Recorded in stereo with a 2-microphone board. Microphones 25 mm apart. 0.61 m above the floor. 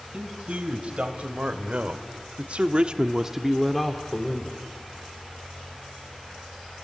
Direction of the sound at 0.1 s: 55° right (ahead or behind).